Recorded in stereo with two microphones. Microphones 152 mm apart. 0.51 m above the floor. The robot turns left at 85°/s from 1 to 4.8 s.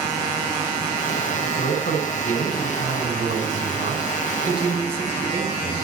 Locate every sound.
1.4 s a man speaking: 125° left, 3.5 m; by 5.8 s 160° right, 3.5 m